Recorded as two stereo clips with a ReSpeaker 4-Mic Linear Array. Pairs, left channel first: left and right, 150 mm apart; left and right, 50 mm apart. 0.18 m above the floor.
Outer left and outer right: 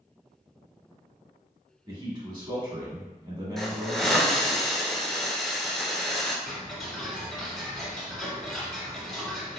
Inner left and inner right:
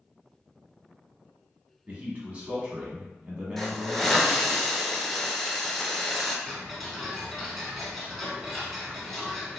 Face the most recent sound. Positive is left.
turn(degrees=0)  # may be behind; listen again after turning